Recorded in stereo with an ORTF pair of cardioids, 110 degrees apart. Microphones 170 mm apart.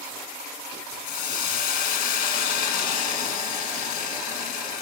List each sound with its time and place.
1.1 s a hiss: 65° left, 1.9 m